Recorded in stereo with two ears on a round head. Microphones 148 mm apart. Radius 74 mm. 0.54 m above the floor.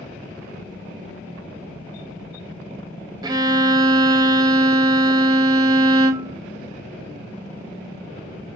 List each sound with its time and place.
3.2 s a violin: 20° right (ahead or behind), 0.6 m